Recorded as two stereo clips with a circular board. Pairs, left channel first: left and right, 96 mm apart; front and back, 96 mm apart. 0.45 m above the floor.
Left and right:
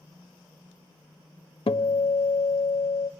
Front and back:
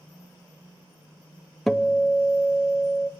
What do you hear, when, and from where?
1.7 s a guitar: 90° left, 0.6 m